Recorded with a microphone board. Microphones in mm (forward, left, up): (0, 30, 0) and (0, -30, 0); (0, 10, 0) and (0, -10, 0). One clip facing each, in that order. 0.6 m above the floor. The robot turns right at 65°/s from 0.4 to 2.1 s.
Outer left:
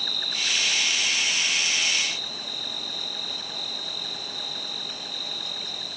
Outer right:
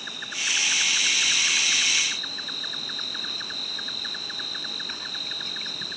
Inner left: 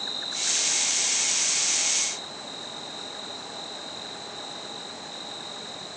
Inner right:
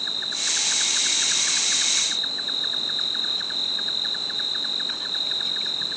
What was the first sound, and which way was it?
An insect, 160° right.